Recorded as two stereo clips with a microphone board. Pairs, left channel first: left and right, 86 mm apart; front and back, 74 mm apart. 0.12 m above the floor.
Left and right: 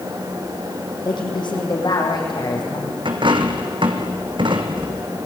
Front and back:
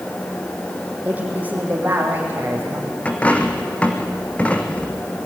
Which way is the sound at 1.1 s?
110° left.